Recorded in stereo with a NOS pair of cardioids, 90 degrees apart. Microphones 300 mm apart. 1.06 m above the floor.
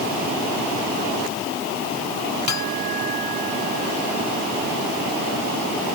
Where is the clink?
65° left.